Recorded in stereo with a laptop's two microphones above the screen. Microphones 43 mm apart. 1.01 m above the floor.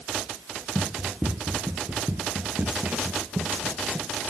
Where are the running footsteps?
35° right (ahead or behind), 1.2 m; by 4.1 s 40° right (ahead or behind), 1.9 m.